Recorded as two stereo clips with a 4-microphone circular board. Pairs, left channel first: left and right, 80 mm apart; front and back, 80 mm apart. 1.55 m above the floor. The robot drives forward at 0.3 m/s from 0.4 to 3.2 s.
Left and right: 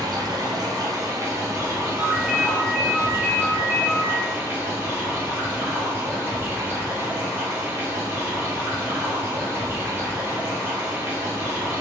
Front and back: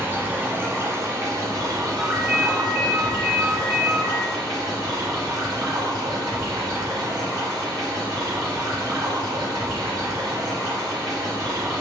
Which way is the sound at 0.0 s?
120° right.